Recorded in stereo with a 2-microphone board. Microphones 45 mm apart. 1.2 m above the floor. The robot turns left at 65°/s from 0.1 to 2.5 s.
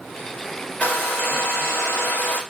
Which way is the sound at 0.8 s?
145° left.